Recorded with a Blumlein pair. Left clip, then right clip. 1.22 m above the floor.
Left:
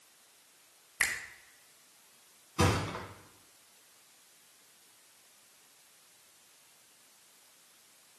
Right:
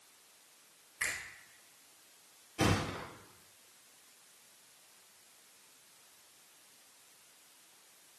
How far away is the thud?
About 3 m.